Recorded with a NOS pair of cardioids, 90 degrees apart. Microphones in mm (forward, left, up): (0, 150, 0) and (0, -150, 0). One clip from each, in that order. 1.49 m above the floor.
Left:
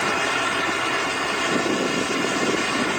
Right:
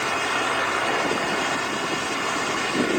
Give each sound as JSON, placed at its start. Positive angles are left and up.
{"t": 0.0, "sound": "a fan", "azimuth_deg": 15}